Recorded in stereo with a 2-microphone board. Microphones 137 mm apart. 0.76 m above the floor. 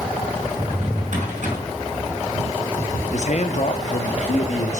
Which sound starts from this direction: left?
A man speaking, at 3.1 s.